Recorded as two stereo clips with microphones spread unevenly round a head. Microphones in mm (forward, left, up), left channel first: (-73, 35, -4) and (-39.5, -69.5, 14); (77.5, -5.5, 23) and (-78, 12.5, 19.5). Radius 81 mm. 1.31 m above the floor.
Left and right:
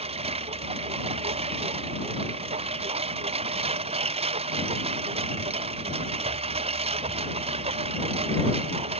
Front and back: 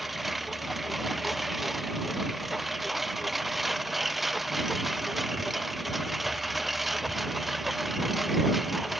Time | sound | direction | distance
0.0 | a lawn mower | 100° right | ?